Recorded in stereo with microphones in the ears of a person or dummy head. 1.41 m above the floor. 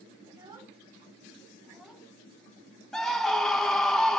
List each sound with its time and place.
0.3 s a child speaking: 25° right (ahead or behind), 3 m; by 2.1 s 5° left (ahead or behind), 1.2 m
2.9 s a scream: 5° left (ahead or behind), 0.5 m